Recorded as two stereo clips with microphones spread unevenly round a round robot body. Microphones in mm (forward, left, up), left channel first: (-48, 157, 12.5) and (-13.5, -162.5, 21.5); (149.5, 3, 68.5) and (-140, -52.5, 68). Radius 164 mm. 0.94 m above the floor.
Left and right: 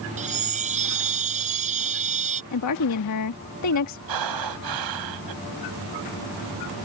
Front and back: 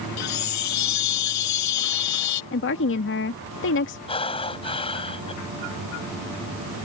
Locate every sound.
0.2 s a chime: 15° right
2.5 s a woman speaking: 60° left
4.1 s breathing: 60° right